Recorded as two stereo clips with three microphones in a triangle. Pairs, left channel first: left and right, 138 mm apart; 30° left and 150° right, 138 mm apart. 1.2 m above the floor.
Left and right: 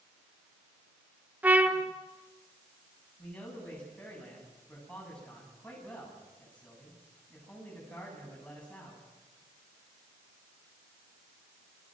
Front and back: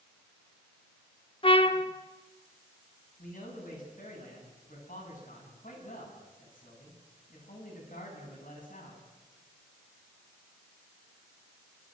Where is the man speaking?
10° left, 9.5 m.